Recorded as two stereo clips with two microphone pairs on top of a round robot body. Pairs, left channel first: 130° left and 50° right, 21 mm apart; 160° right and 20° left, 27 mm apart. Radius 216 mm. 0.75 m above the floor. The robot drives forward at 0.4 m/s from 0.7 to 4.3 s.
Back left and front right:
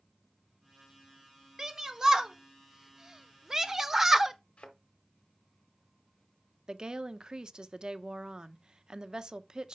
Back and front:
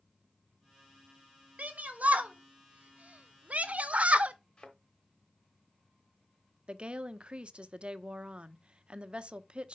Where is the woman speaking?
5° right, 0.9 m.